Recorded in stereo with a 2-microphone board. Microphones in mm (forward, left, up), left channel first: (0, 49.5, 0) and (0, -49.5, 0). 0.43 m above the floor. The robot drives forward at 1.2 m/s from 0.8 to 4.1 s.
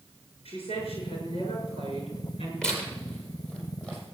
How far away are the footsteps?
No footsteps in this recording.